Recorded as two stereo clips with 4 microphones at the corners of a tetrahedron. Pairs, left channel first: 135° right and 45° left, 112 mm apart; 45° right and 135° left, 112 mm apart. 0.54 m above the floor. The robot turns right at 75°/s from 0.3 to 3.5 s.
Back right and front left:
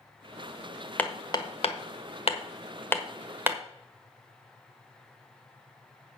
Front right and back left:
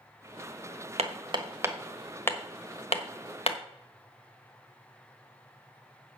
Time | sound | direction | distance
1.0 | hammering | 150° left | 1.3 m